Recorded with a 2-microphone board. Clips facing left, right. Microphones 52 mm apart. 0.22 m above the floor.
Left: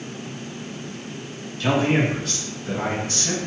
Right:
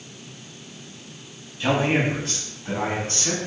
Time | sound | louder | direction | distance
1.6 | a man speaking | left 1 dB | 25° right (ahead or behind) | 1.3 m